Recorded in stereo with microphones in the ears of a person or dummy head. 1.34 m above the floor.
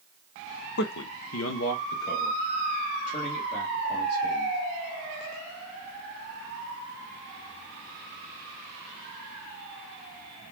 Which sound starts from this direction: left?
A man speaking, at 0.8 s.